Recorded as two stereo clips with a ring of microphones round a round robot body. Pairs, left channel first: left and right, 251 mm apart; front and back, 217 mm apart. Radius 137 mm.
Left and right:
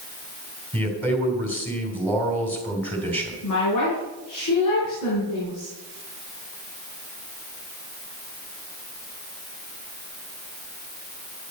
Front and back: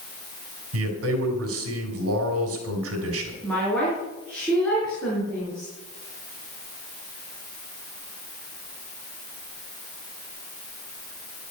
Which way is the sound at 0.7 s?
175° left.